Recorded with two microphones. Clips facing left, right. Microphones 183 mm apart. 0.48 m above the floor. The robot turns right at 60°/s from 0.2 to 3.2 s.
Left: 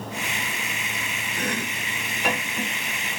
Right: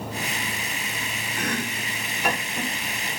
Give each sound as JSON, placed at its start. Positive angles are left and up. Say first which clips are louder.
{"t": 1.4, "sound": "chopping", "louder": "right 1 dB", "side_deg": 30, "distance_m": 1.5}